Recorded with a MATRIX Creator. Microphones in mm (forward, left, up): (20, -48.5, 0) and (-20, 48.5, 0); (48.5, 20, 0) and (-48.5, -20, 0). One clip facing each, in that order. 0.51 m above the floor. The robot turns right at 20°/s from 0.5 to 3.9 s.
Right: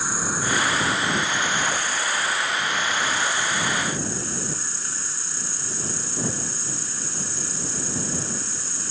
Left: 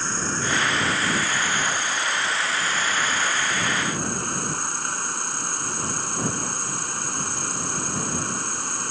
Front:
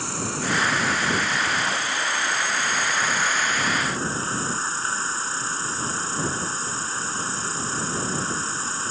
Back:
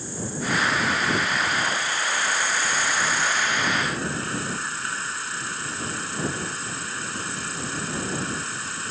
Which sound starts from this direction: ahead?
An insect, at 0.0 s.